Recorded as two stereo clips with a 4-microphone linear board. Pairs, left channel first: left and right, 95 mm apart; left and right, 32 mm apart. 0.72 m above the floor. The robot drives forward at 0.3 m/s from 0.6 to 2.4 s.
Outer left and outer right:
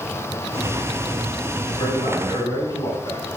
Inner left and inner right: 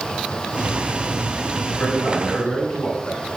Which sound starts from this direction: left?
A man speaking, at 1.7 s.